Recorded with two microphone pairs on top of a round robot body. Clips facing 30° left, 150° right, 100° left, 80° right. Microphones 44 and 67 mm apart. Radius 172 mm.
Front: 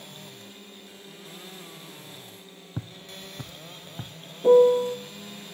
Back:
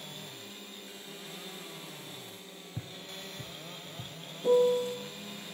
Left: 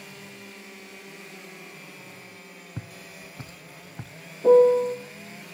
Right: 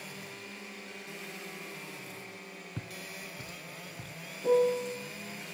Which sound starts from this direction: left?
A piano, at 4.4 s.